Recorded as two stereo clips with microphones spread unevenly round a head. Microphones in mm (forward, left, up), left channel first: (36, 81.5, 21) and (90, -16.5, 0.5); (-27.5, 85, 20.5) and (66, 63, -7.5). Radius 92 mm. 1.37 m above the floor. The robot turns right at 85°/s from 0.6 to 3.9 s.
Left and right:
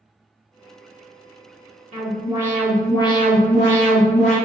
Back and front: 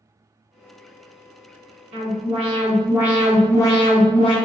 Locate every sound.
1.9 s an alarm: 35° right, 1.4 m; by 4.3 s 135° left, 1.4 m